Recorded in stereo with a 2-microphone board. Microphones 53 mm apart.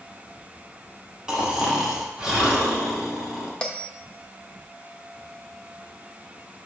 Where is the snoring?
15° right (ahead or behind), 1.5 m.